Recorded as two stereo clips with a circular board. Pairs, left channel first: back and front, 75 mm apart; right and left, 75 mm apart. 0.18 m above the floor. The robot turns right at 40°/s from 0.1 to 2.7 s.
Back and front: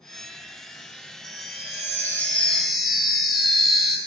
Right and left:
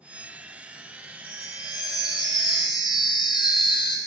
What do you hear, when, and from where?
1.2 s a chime: 150° right, 1.0 m; by 4.0 s 90° right, 1.0 m